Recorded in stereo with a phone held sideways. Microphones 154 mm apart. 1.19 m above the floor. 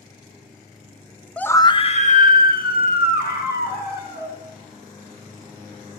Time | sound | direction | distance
1.4 | a scream | 5° left (ahead or behind) | 0.5 m